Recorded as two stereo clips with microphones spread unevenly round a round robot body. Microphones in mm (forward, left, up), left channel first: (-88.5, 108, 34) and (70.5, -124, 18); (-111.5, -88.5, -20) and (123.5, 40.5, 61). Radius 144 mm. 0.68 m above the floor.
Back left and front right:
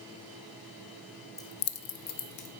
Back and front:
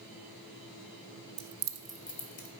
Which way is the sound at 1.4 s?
45° left.